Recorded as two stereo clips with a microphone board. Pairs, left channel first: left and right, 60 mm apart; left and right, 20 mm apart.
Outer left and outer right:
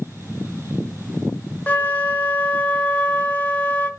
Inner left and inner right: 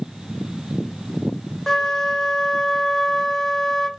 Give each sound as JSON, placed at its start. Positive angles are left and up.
{"t": 1.7, "sound": "a flute", "side_deg": 25, "distance_m": 1.4}